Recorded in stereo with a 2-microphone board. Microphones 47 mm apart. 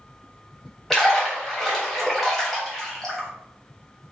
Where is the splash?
5° left (ahead or behind), 1.5 m.